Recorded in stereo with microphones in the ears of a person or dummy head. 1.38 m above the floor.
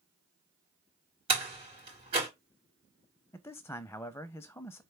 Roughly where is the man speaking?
Centre.